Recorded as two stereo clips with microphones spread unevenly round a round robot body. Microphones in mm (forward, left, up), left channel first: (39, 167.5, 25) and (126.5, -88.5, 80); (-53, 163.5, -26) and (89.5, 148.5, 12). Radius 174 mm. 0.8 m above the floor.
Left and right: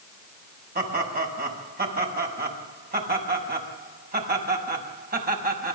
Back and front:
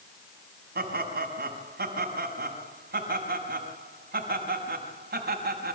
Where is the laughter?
15° right, 6.5 m.